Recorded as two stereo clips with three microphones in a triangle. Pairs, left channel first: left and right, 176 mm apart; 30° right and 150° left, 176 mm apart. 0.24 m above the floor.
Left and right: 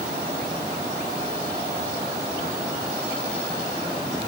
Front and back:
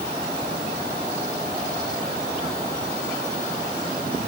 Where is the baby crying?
I don't hear a baby crying.